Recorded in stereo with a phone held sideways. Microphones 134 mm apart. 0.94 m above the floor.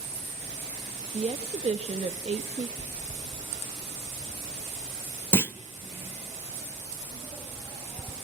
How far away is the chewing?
About 5.5 m.